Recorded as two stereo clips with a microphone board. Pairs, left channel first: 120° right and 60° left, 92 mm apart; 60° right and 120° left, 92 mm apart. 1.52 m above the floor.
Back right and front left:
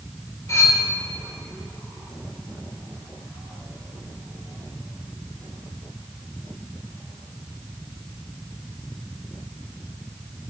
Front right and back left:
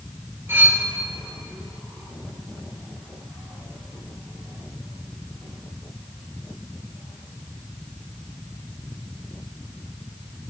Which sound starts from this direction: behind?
Cutlery clinking, at 0.5 s.